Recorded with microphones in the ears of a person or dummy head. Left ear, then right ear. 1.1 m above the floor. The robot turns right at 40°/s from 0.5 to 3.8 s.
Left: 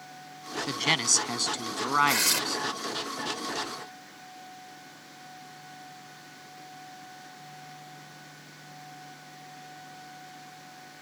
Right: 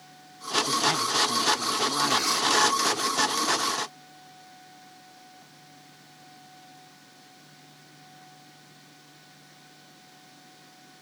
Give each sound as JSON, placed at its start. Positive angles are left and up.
{"t": 0.7, "sound": "a man speaking", "azimuth_deg": 60}
{"t": 2.1, "sound": "tearing paper", "side_deg": 35}